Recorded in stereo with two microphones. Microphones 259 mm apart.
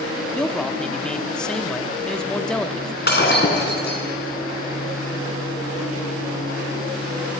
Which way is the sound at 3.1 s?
40° left (ahead or behind).